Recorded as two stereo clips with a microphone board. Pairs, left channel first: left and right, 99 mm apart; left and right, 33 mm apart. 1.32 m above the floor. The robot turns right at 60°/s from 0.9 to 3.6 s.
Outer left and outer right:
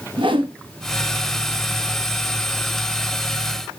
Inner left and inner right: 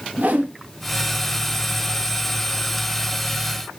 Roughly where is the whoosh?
Right.